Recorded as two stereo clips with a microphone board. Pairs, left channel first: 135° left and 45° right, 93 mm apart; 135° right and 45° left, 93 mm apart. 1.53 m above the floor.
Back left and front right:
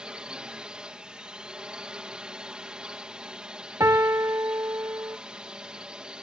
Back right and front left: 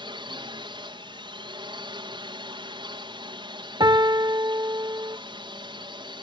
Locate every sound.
0.0 s a drone: 35° left
3.8 s a piano: 10° left